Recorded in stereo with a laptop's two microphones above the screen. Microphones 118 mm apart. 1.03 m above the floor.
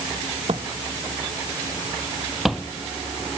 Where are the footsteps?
55° right (ahead or behind); by 2.7 s 5° left (ahead or behind).